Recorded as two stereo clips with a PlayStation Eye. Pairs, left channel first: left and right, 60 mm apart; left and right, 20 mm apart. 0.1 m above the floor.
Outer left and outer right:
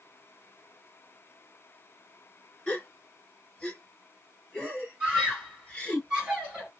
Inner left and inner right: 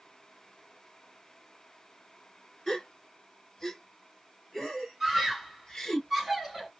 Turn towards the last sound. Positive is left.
turn(degrees=-15)  # may be behind; listen again after turning